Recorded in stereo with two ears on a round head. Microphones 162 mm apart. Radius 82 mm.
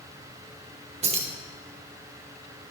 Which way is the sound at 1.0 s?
35° right (ahead or behind).